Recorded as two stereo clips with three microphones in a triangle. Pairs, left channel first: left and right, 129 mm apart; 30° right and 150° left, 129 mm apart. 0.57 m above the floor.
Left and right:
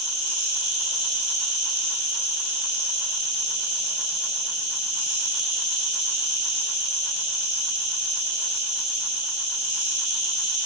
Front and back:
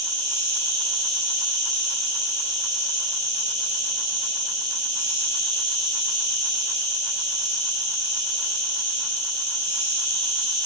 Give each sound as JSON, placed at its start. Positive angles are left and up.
{"t": 0.0, "sound": "an insect", "azimuth_deg": -160, "distance_m": 0.9}